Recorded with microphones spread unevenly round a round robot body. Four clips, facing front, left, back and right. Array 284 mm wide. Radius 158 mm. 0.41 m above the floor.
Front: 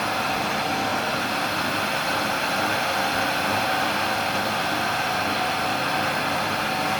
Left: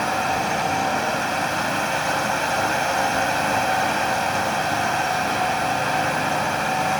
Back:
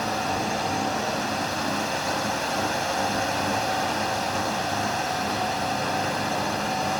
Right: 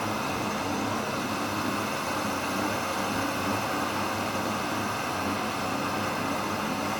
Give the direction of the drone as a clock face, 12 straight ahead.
10 o'clock.